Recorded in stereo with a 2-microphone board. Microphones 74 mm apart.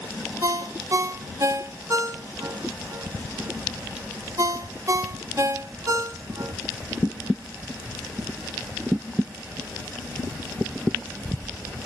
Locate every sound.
0.4 s a ringtone: 50° right (ahead or behind), 0.8 m